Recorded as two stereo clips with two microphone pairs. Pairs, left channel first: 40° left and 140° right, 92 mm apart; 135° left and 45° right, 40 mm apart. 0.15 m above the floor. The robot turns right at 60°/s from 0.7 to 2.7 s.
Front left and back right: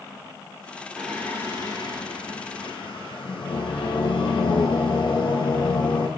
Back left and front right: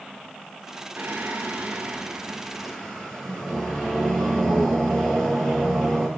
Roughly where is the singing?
Ahead right.